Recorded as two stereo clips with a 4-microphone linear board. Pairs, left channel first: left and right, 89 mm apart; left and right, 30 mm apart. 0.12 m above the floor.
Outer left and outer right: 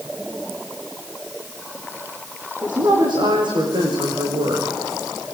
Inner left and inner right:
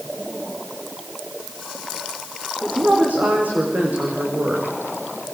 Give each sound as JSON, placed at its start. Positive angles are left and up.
{"t": 2.6, "sound": "a woman speaking", "side_deg": -70, "distance_m": 9.5}